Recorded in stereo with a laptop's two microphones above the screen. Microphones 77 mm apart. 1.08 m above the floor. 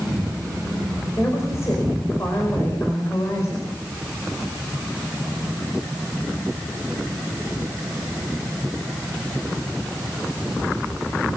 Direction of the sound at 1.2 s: 40° left (ahead or behind).